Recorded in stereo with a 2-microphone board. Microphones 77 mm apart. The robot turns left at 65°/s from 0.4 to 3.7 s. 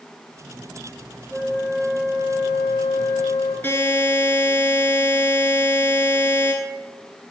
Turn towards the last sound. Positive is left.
turn(degrees=30)  # may be behind; listen again after turning